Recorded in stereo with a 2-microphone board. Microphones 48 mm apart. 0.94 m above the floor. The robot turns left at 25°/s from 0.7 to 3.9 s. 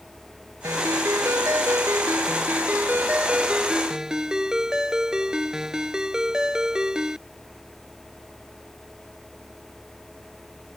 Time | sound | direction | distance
0.6 | a ringtone | 90° right | ?